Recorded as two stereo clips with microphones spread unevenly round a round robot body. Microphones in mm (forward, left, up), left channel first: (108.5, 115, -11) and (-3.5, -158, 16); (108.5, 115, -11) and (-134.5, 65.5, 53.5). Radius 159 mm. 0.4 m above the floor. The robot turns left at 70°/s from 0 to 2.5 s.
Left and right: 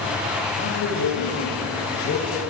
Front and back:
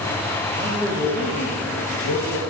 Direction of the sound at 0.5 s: 125° left.